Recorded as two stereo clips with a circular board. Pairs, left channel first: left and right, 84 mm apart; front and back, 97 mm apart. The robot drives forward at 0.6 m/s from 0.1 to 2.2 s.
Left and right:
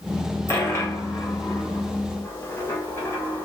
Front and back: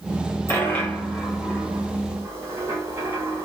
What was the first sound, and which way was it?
A dropped coin, 50° left.